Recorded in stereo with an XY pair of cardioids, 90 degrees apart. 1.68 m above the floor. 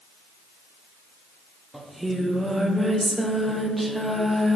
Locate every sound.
1.7 s singing: 15° right, 1.3 m